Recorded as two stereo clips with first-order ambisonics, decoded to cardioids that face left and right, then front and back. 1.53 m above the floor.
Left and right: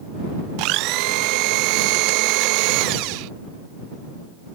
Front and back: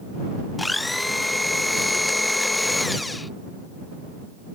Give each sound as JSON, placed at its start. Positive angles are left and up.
{"t": 0.6, "sound": "a blender", "azimuth_deg": -85}